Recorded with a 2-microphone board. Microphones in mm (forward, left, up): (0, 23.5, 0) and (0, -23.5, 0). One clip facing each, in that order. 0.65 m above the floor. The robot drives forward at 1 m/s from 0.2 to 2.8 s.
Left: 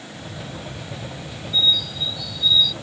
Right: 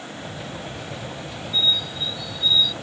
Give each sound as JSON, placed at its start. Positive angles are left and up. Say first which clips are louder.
{"t": 1.5, "sound": "a bird", "louder": "left 2 dB", "side_deg": -30}